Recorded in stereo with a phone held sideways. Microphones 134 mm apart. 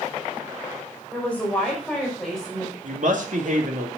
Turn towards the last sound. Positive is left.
turn(degrees=-65)  # may be behind; listen again after turning